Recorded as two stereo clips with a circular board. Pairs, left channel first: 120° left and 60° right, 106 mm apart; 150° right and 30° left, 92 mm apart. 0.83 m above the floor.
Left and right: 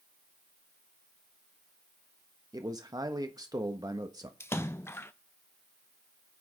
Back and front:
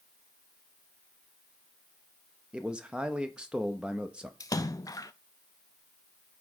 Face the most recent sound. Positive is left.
turn(degrees=180)